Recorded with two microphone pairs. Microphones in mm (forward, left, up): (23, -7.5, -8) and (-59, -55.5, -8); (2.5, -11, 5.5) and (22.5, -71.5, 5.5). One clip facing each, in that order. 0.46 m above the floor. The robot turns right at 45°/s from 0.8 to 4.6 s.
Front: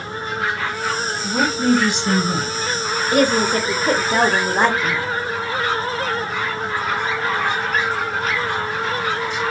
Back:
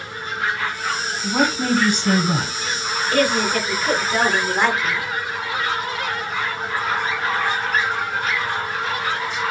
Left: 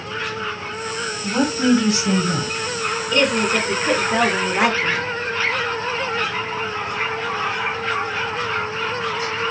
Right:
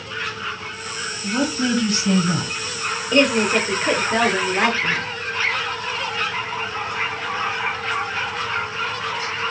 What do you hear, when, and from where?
1.2 s a woman speaking: 165° left, 1.5 m; by 2.5 s 135° right, 1.5 m
3.1 s a woman speaking: 30° right, 0.8 m; by 5.0 s 35° left, 0.8 m